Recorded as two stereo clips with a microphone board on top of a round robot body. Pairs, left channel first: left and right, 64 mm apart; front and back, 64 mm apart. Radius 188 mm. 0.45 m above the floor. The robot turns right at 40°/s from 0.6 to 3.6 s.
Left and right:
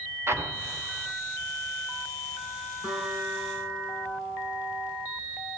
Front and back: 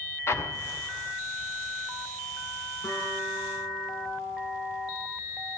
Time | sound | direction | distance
0.3 | an explosion | 45° right | 1.9 m
2.8 | a guitar | 15° right | 9 m